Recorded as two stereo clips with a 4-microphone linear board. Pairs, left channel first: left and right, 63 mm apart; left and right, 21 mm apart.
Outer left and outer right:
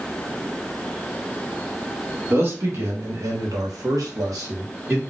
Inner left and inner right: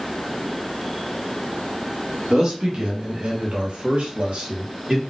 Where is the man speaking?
35° right (ahead or behind), 1.5 m; by 5.0 s 45° right (ahead or behind), 1.1 m.